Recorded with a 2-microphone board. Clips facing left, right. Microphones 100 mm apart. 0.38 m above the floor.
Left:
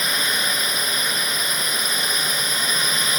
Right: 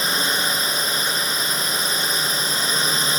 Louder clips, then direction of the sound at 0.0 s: Right 2 dB; 30° right (ahead or behind).